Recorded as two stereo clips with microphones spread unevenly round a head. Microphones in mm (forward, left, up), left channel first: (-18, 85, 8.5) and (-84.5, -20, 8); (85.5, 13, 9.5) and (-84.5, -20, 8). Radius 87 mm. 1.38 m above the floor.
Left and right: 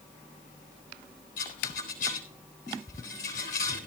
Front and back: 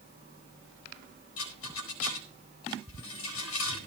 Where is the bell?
I don't hear a bell.